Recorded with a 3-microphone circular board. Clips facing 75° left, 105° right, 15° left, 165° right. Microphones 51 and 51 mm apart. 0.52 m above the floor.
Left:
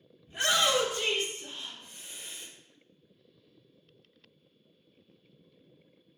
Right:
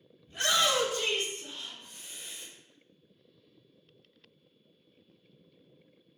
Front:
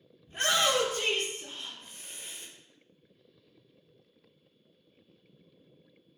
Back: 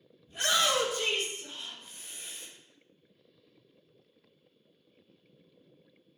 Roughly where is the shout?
Ahead.